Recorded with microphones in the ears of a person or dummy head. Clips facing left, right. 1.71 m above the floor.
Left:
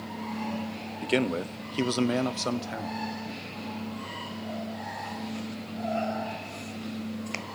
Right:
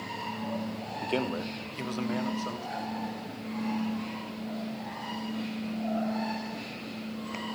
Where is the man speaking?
20° left (ahead or behind), 0.6 m; by 3.0 s 80° left, 1.1 m.